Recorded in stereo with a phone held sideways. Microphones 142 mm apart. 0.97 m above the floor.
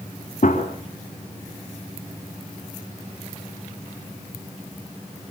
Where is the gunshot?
55° left (ahead or behind), 4 m.